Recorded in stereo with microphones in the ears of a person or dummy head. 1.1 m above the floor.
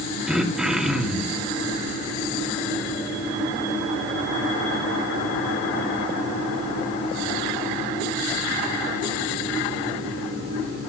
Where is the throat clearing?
5° right (ahead or behind), 2.5 m.